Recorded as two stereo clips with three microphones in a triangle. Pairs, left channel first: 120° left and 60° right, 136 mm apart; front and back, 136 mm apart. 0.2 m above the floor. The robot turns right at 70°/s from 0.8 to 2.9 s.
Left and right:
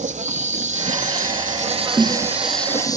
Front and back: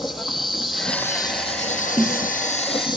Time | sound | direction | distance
0.0 | an insect | 90° right | 1.2 m
2.0 | a snare drum | 120° right | 2 m